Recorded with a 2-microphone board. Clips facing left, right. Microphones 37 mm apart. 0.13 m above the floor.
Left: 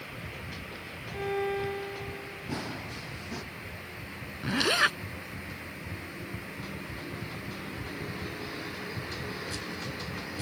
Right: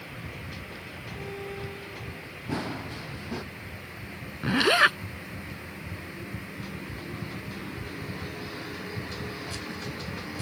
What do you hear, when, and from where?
1.1 s a violin: 40° left (ahead or behind)
2.5 s running footsteps: 15° right (ahead or behind)
4.4 s a zipper: 20° right (ahead or behind)